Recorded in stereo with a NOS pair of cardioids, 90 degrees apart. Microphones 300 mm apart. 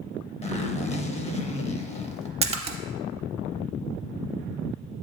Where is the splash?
20° right, 0.6 m.